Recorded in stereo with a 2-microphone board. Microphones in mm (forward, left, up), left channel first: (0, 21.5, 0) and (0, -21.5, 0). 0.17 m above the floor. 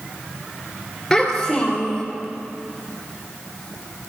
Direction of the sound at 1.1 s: 15° left (ahead or behind).